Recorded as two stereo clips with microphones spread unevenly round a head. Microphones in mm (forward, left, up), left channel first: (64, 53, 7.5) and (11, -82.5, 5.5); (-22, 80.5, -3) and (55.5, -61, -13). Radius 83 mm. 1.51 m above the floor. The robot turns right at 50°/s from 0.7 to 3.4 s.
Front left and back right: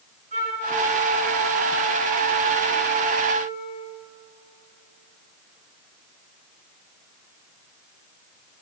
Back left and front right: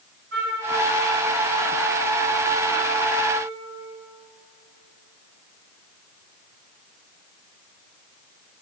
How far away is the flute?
About 4.5 m.